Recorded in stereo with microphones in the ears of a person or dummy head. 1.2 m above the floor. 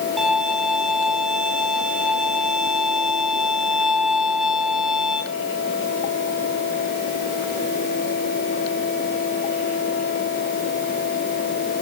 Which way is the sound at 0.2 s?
5° right (ahead or behind).